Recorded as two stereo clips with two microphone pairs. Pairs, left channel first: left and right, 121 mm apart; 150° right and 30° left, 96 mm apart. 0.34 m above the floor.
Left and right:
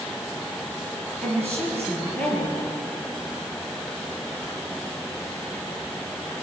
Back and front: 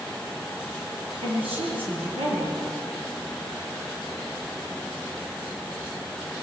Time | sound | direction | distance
1.2 | a woman speaking | 15° left | 8.5 m